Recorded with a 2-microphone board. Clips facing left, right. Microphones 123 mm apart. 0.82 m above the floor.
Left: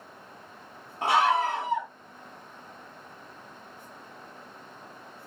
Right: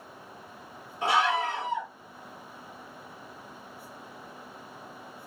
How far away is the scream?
About 1.7 m.